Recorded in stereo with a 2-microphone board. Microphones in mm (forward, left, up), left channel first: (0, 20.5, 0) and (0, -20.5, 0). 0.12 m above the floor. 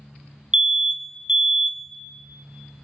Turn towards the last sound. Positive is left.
turn(degrees=-20)  # may be behind; listen again after turning